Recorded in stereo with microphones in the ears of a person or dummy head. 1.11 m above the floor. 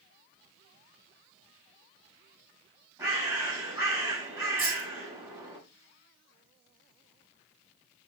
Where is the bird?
20° right (ahead or behind), 4.5 m.